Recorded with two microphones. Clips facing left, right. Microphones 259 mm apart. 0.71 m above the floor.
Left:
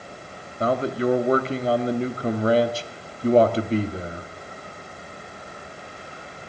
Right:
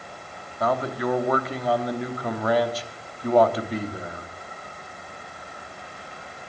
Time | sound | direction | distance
0.6 | a man speaking | 30° left (ahead or behind) | 0.9 m